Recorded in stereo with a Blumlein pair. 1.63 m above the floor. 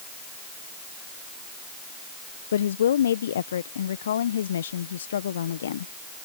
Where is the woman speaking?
65° left.